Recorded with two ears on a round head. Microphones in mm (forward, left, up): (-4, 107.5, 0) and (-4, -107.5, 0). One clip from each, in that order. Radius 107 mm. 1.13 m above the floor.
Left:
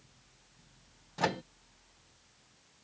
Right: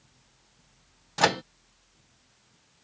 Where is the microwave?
45° right (ahead or behind).